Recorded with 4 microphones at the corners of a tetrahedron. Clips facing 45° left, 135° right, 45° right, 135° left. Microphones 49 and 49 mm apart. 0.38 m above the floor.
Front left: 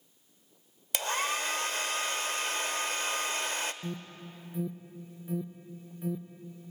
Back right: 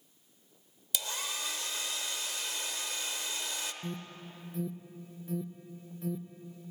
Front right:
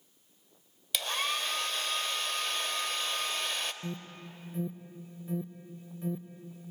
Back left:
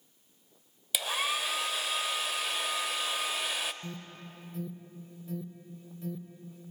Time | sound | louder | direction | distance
0.9 | a hair dryer | front left 7 dB, back left 1 dB | 55° left | 0.7 m
3.8 | an alarm | front left 1 dB, front right 2 dB | 15° right | 0.5 m